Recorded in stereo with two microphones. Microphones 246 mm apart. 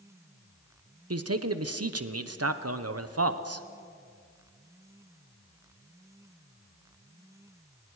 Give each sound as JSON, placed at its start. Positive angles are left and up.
{"t": 1.1, "sound": "a man speaking", "side_deg": -75, "distance_m": 1.0}